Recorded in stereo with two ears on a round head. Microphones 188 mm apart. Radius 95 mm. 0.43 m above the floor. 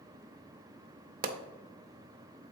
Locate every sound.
1.2 s a pop: 45° right (ahead or behind), 0.6 m